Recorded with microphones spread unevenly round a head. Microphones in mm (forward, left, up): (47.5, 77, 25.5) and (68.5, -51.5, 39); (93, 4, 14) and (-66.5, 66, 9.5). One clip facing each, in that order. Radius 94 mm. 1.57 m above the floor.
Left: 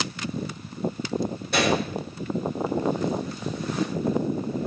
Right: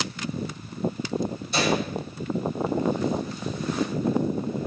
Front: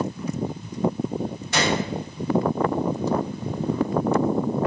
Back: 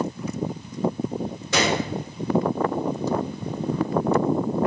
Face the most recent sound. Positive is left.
turn(degrees=155)